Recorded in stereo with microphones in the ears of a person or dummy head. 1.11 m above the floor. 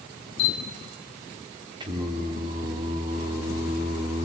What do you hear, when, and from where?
0.4 s a camera shutter: 70° left (ahead or behind), 1.4 m
1.8 s singing: 25° right (ahead or behind), 2.5 m